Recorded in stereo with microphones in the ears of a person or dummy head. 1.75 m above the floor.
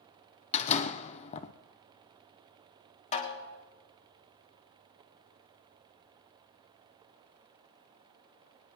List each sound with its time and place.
0.5 s a door slam: 40° left (ahead or behind), 1.0 m
3.1 s a snare drum: 35° left (ahead or behind), 1.7 m